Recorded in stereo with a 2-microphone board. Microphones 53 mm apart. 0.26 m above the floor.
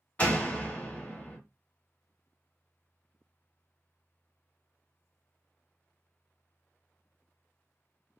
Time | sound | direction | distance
0.2 | a door slam | 30° left (ahead or behind) | 0.9 m